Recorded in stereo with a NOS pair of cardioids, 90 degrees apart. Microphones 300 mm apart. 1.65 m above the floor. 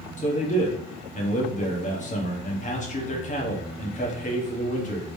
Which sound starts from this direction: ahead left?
A man speaking, at 0.2 s.